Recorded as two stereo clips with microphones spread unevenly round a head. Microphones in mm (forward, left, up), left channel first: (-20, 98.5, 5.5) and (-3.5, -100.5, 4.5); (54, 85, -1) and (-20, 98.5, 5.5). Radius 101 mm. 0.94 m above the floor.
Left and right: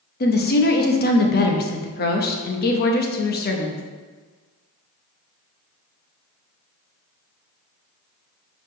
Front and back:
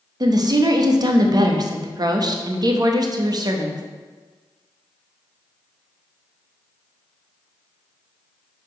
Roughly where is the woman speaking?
Behind left.